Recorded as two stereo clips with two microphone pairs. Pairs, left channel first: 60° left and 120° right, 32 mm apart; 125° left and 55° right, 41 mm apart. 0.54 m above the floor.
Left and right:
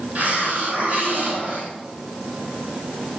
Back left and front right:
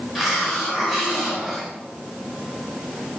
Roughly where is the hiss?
Behind right.